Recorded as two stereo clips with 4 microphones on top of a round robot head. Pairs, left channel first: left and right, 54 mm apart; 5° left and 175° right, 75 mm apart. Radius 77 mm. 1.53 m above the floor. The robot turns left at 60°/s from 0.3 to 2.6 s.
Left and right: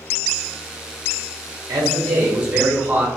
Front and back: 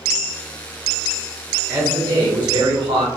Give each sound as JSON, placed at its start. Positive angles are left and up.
{"t": 1.7, "sound": "a man speaking", "azimuth_deg": -100, "distance_m": 0.8}